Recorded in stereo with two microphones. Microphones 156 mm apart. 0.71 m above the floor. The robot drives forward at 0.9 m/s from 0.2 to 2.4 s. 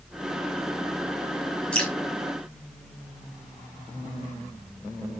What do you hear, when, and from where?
1.7 s dripping: 5° left (ahead or behind), 5 m